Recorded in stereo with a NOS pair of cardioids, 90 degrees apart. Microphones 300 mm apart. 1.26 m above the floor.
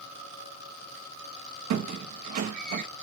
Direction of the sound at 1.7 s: 65° right.